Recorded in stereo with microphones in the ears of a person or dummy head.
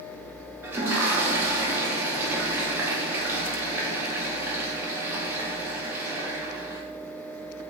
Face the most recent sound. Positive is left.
turn(degrees=-10)  # may be behind; listen again after turning